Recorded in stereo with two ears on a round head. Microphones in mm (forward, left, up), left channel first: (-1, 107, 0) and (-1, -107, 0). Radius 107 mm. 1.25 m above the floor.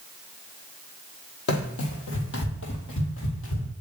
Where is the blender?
No blender in this recording.